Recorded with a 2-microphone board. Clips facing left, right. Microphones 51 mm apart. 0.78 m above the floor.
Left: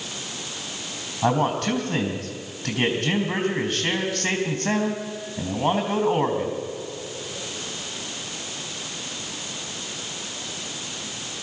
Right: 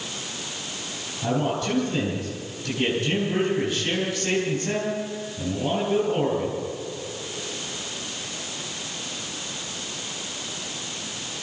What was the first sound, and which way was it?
A man speaking, 50° left (ahead or behind).